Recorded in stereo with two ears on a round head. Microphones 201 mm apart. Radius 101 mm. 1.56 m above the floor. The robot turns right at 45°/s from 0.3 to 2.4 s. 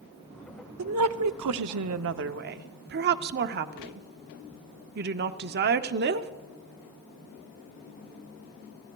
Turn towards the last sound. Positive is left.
turn(degrees=-45)